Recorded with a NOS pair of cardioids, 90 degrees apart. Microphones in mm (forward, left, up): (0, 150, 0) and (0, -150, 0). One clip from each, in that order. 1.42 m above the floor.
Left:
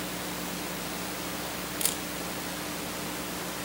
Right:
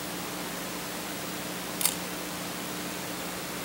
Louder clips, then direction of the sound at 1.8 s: Right 1 dB; 5° right.